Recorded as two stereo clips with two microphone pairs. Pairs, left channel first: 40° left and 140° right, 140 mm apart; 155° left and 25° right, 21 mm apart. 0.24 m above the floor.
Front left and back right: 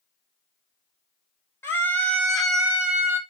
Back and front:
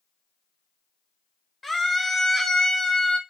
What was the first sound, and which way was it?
A scream, 55° left.